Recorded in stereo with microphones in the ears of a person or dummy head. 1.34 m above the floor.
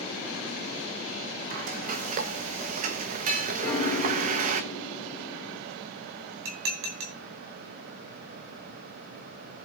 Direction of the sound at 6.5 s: 60° right (ahead or behind).